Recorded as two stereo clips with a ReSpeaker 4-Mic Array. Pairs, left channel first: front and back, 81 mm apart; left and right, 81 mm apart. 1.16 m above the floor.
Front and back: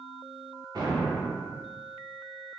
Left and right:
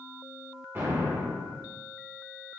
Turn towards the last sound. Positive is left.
turn(degrees=-150)